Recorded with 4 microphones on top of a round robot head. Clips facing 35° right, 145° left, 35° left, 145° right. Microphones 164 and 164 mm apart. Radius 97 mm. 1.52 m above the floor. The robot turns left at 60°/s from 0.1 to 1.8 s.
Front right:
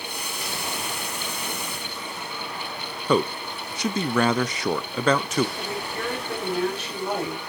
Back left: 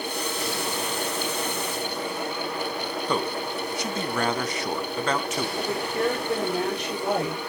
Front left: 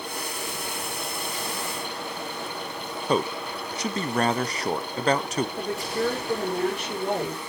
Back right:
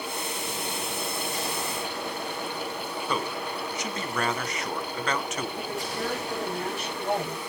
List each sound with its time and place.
3.1 s a man speaking: 25° right, 1.0 m
5.6 s a woman speaking: 70° left, 7.5 m